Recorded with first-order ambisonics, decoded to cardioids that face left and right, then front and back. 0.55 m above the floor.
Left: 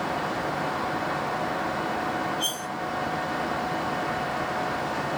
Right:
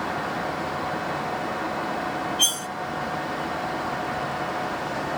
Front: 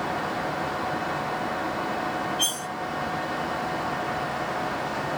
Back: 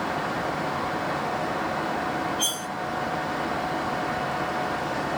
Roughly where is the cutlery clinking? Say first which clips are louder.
Right 6 dB, front 1 dB; right.